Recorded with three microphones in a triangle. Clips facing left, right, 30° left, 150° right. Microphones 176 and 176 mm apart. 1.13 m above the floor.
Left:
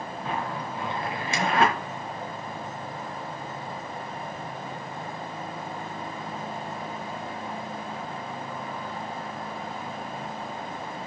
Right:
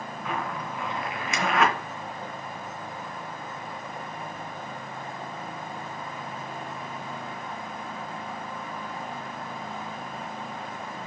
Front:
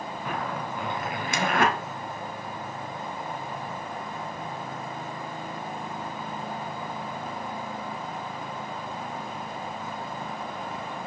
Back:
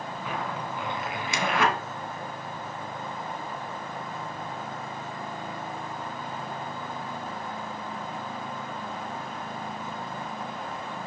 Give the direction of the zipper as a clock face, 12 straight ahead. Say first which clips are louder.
Even, front 1 dB; 11 o'clock.